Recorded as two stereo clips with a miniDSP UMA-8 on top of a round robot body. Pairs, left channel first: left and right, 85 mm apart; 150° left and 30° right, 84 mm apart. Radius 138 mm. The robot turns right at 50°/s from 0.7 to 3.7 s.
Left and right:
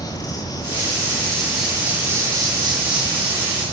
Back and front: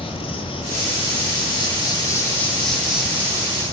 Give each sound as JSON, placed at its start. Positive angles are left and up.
{"t": 0.0, "sound": "an insect", "azimuth_deg": 135, "distance_m": 7.5}